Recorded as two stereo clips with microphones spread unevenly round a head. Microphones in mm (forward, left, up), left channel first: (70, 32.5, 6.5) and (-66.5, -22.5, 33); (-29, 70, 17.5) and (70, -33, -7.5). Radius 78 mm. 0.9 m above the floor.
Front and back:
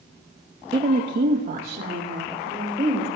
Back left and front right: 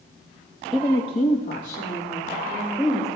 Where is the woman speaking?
115° right, 0.6 m; by 3.1 s 165° left, 3.5 m.